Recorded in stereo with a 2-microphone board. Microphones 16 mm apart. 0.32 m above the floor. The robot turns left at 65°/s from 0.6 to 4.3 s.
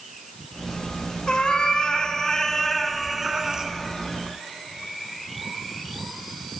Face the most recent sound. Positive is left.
turn(degrees=-85)